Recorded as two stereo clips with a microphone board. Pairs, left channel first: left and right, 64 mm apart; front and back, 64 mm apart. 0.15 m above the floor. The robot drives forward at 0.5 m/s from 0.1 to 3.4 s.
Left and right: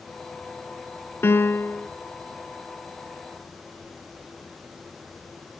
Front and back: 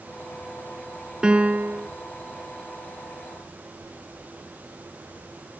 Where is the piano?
110° left, 0.7 m; by 1.9 s 135° left, 0.8 m.